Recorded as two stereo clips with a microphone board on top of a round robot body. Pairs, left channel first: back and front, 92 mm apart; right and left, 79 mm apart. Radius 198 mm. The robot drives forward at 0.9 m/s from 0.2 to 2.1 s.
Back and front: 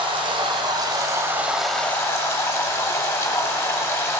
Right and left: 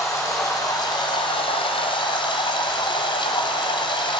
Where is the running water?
30° right, 1.5 m; by 4.2 s 120° right, 0.8 m.